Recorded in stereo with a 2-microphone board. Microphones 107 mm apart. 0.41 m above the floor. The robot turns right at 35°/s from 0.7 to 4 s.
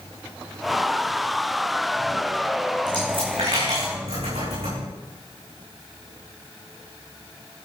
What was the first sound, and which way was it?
A dropped coin, 45° right (ahead or behind).